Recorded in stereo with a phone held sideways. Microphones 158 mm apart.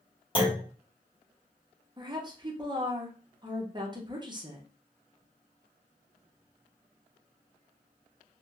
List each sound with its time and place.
0.3 s a clunk: 30° left (ahead or behind), 1.3 m
2.0 s a woman speaking: 30° right (ahead or behind), 0.9 m